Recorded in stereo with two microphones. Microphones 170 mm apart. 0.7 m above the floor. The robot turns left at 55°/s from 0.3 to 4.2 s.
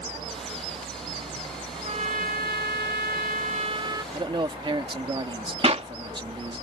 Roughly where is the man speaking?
Right.